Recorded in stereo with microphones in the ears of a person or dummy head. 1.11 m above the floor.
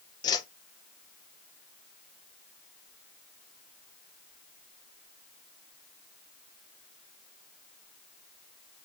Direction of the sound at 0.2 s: 25° left (ahead or behind).